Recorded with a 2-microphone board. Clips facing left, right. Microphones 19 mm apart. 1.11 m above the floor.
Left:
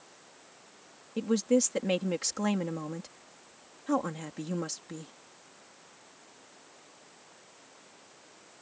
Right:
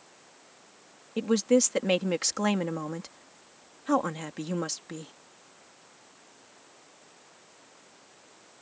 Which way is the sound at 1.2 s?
20° right (ahead or behind).